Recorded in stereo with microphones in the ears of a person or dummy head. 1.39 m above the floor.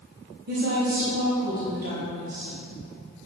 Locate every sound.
0.5 s a woman speaking: 50° right (ahead or behind), 2.5 m